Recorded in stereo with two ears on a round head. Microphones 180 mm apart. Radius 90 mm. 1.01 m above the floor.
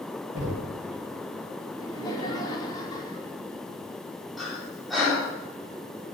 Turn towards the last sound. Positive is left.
turn(degrees=0)  # may be behind; listen again after turning